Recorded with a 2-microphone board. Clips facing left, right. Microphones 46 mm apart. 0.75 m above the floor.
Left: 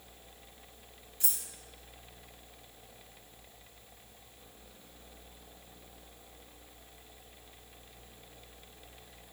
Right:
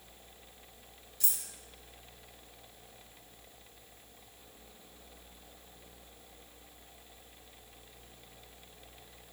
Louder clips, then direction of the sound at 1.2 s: Even; 25° left (ahead or behind).